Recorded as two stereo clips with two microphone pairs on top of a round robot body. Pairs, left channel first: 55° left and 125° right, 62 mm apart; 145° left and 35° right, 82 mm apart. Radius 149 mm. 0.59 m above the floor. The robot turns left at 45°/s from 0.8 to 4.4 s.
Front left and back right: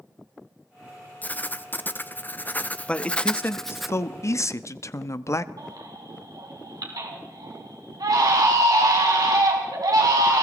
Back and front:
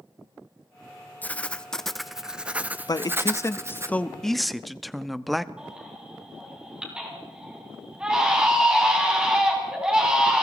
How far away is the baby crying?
About 4 m.